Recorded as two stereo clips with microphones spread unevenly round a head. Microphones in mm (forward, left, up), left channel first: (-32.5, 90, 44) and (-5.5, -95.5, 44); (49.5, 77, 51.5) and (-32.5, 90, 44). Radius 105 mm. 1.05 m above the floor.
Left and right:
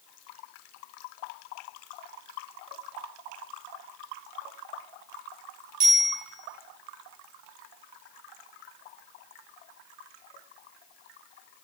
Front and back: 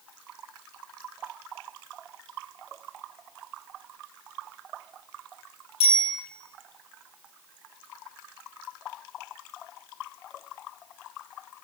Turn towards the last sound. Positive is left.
turn(degrees=-30)